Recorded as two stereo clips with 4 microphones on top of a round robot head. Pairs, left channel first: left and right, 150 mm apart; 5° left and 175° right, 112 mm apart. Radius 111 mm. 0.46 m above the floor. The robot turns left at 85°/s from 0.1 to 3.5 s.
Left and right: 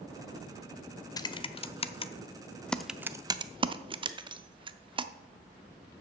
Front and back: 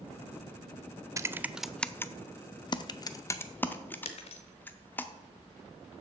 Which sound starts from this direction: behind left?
Typing on a keyboard, at 1.2 s.